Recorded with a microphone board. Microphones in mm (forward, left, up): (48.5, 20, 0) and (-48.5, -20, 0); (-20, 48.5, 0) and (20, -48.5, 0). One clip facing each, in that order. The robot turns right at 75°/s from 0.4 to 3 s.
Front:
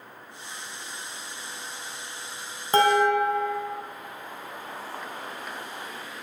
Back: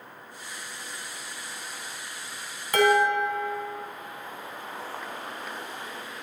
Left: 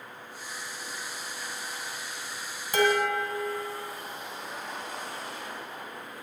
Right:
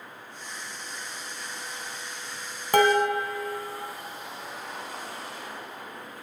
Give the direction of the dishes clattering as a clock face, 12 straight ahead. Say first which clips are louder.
Front 1 dB, right 4 dB; 1 o'clock.